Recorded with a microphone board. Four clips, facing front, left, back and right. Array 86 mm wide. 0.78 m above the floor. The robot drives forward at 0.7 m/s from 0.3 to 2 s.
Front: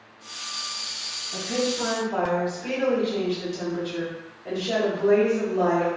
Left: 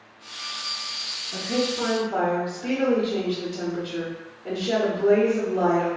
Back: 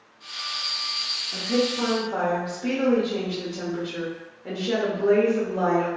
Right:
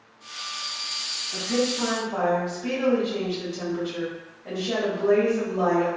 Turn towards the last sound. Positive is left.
turn(degrees=145)